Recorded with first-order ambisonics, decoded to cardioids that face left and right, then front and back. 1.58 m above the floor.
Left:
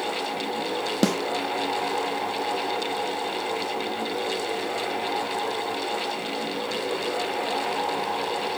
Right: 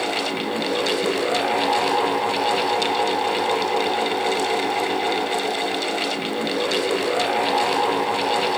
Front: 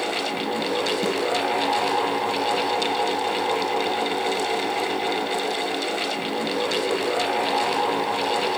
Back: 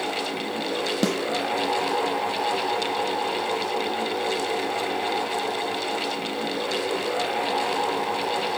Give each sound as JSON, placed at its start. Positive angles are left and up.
{"t": 1.0, "sound": "a snare drum", "azimuth_deg": 120, "distance_m": 0.9}